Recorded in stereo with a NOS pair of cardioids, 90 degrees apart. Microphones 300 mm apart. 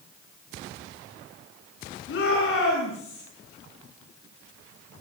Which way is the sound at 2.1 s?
45° left.